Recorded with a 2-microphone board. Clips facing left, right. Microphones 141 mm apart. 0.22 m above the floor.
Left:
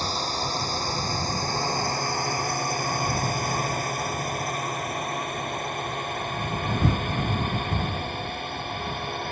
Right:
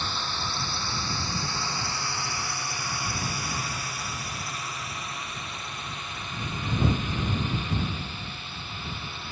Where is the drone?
40° left (ahead or behind); by 9.3 s 55° left (ahead or behind).